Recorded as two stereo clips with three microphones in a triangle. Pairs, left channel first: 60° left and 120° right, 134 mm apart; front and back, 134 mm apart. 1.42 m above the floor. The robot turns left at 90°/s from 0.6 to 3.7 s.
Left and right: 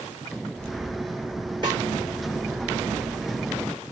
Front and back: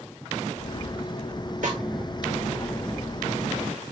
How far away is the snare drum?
About 4 m.